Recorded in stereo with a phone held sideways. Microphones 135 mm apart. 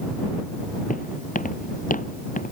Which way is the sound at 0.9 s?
80° left.